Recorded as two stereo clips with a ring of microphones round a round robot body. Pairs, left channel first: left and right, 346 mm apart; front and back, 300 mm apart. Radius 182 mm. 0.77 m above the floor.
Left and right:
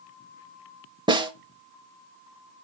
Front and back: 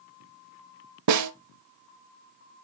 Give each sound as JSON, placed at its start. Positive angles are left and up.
{"t": 1.1, "sound": "a snare drum", "azimuth_deg": -165, "distance_m": 0.7}